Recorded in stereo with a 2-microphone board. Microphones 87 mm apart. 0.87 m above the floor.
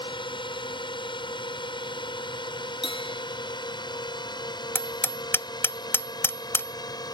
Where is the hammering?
25° left (ahead or behind).